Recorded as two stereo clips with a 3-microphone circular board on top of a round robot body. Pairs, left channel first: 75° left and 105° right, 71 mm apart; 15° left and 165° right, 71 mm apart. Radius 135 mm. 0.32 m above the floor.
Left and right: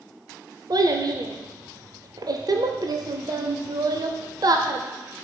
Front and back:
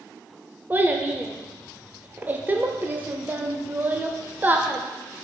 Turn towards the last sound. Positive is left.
turn(degrees=-105)